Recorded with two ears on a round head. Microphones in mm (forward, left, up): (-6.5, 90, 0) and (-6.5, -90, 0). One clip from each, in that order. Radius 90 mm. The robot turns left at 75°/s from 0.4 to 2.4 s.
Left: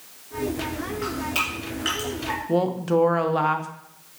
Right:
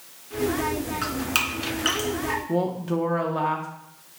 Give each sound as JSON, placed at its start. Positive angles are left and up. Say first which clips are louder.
{"t": 1.0, "sound": "dripping", "louder": "even", "side_deg": -65, "distance_m": 1.9}
{"t": 2.5, "sound": "a woman speaking", "louder": "left 4 dB", "side_deg": 25, "distance_m": 0.6}